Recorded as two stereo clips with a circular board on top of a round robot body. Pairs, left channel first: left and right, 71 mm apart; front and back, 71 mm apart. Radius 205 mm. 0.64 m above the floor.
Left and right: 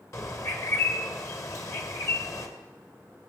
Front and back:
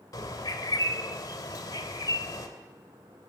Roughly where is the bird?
Ahead left.